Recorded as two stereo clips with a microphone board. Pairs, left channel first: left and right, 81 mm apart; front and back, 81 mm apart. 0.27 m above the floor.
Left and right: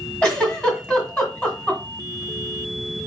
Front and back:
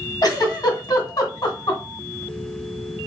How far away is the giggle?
About 1.8 m.